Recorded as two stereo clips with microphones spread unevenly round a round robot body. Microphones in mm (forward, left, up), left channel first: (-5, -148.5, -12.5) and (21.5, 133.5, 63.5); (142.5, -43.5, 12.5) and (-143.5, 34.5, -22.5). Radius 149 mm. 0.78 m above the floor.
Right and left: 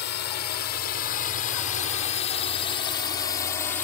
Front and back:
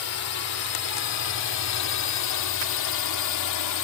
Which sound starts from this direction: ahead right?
A drone, at 0.0 s.